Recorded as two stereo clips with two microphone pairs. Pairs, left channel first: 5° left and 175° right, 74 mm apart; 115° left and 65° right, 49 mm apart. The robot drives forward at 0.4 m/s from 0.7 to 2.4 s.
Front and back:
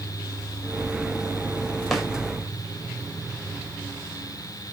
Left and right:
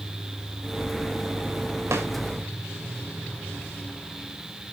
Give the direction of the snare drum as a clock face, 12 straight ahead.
3 o'clock.